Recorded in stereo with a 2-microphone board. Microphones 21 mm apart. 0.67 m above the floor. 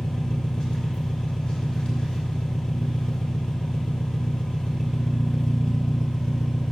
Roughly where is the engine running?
Left.